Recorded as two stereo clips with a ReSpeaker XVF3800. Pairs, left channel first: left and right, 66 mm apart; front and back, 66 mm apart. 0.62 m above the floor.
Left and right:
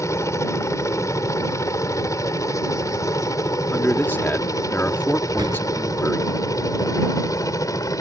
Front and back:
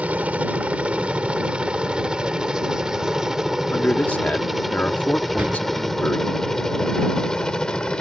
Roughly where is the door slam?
Behind right.